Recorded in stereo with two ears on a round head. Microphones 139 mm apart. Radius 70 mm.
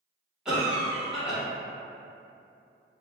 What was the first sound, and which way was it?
A cough, 5° right (ahead or behind).